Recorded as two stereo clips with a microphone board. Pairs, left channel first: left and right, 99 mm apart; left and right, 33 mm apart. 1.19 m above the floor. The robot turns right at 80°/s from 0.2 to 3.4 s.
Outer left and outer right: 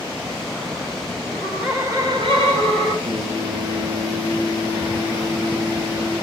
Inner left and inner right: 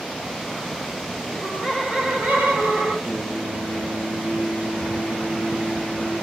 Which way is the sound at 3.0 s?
60° right (ahead or behind).